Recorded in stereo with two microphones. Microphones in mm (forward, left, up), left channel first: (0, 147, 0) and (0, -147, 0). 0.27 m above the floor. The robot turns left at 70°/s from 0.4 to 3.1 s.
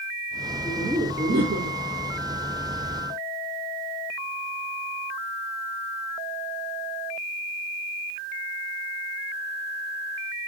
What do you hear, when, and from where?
0.7 s laughter: 5° left, 4 m; by 1.8 s 70° right, 4 m